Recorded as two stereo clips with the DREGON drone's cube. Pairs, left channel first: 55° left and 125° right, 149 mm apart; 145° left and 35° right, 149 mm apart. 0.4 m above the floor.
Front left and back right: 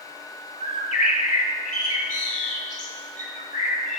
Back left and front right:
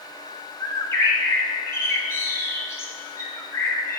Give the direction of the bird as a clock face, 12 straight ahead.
9 o'clock.